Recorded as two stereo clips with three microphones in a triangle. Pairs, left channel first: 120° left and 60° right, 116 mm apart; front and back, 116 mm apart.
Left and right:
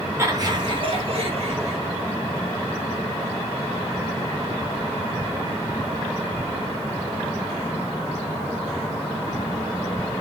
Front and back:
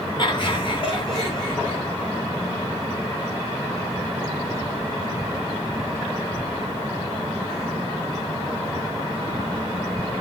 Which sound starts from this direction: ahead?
Laughter, at 0.2 s.